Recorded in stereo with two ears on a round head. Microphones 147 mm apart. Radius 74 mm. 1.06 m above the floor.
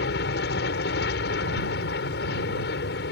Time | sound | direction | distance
0.0 | an aircraft | 70° left (ahead or behind) | ?